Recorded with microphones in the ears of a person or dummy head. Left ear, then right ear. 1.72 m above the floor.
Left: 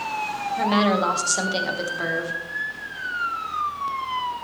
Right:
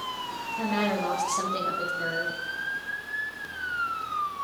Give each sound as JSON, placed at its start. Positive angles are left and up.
{"t": 0.6, "sound": "a woman speaking", "side_deg": 80, "distance_m": 2.0}